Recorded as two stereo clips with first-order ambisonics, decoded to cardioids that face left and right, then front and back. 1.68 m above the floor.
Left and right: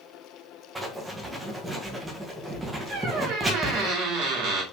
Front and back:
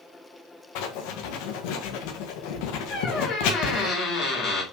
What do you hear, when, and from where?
0.8 s writing: 10° right, 1.6 m
2.9 s a squeak: 55° right, 2.5 m